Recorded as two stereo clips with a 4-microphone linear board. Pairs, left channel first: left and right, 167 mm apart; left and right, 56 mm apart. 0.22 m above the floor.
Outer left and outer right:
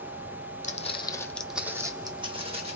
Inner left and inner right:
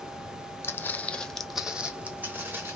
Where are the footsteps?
50° left (ahead or behind), 0.5 m; by 2.8 s 40° right (ahead or behind), 1.0 m.